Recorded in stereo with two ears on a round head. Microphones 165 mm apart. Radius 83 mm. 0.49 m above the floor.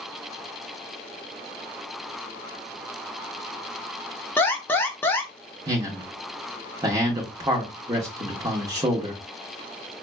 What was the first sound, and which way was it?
An alarm, 10° left (ahead or behind).